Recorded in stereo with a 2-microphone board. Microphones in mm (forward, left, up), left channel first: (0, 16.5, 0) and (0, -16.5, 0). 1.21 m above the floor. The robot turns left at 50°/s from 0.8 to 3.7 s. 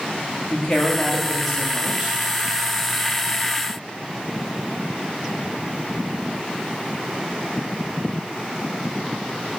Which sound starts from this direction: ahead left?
A woman speaking, at 0.5 s.